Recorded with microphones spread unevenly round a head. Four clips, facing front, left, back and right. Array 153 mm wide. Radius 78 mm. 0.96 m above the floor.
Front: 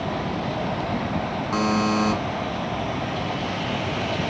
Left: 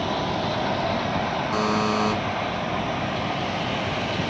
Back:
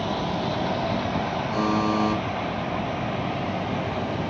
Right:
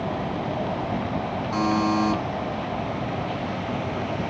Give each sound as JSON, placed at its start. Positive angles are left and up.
{"t": 1.5, "sound": "a buzzer", "azimuth_deg": 25, "distance_m": 3.5}